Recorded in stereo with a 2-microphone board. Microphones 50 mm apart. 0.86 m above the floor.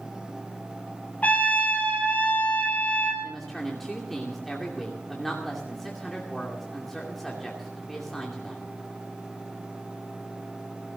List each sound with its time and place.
1.2 s a trumpet: 35° left (ahead or behind), 3.5 m
3.2 s a woman speaking: centre (ahead or behind), 2.5 m